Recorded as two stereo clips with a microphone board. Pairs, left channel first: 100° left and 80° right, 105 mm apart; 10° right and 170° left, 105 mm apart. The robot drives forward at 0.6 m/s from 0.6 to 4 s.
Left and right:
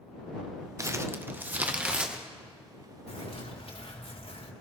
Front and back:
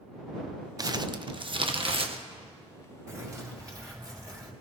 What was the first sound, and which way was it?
Crumpling, 135° right.